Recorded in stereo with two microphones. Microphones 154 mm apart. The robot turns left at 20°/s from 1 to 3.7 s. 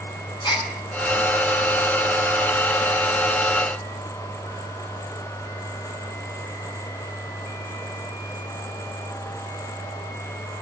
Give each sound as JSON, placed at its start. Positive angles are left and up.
{"t": 0.4, "sound": "a gasp", "side_deg": 30, "distance_m": 5.0}